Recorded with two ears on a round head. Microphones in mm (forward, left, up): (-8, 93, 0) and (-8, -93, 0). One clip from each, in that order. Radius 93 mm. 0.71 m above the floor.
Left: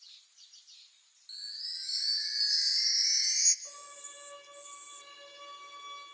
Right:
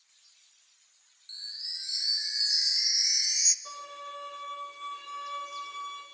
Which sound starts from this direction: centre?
A chime, at 1.3 s.